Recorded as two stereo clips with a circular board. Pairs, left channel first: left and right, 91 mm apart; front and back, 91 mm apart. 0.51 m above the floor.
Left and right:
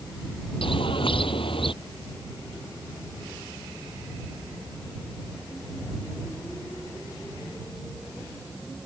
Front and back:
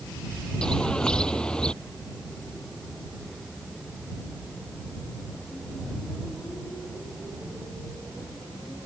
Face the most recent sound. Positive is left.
turn(degrees=80)